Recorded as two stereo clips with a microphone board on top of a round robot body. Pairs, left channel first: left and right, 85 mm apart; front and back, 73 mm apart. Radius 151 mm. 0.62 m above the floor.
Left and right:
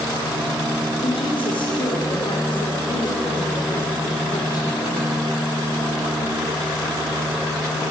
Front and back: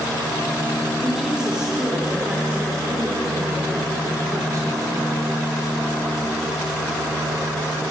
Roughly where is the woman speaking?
Left.